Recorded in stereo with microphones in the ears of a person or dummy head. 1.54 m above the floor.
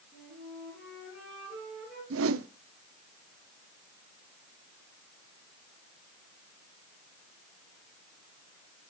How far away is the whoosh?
About 0.8 m.